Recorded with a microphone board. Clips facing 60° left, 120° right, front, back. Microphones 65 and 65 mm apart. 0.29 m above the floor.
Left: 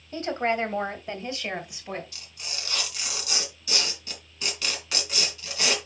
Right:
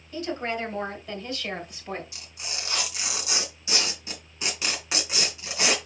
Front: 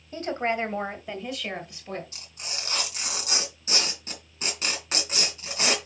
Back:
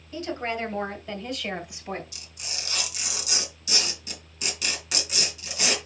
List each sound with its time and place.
0.1 s a woman speaking: 25° left, 2 m; by 2.0 s 155° left, 1.6 m
2.1 s tearing paper: 55° right, 3 m